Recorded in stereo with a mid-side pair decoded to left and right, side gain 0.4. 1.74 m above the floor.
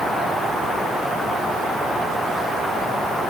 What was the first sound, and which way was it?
Only background noise.